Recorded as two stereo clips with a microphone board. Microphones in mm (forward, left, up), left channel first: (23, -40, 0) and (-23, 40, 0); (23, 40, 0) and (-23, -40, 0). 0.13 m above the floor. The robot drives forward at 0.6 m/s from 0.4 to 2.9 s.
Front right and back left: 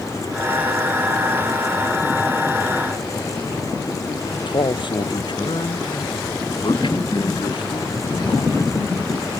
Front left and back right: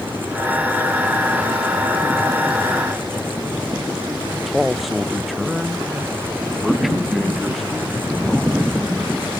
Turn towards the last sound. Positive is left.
turn(degrees=-30)